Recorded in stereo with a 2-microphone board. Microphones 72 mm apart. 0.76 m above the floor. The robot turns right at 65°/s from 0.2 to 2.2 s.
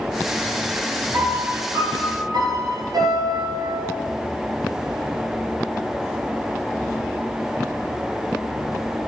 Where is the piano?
140° right, 3 m; by 3.9 s 70° right, 3 m.